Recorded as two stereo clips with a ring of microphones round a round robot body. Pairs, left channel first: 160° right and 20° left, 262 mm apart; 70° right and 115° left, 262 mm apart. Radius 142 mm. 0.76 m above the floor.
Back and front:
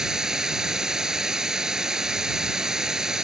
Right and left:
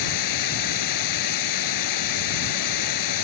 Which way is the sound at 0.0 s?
65° right.